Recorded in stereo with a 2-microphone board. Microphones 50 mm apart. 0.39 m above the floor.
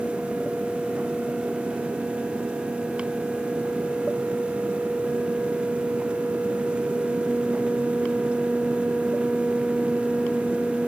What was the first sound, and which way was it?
Only background noise.